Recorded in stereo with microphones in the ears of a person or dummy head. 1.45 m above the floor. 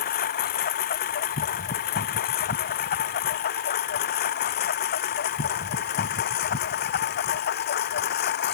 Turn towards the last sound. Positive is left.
turn(degrees=50)  # may be behind; listen again after turning